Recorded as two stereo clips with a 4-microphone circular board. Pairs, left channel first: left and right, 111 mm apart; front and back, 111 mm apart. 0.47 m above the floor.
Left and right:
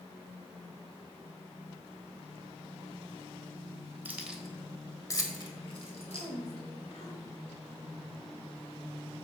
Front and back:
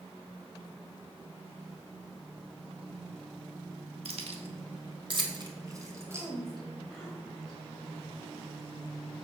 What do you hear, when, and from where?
4.0 s keys jangling: 160° right, 1.5 m; by 6.3 s 110° left, 2 m
6.1 s a woman speaking: 85° left, 2.5 m